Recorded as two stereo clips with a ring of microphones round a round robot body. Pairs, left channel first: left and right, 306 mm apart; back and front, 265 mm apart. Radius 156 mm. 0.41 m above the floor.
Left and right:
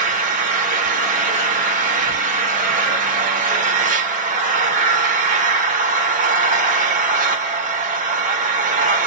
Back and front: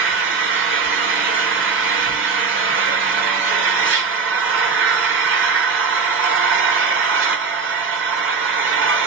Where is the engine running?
30° right, 0.9 m.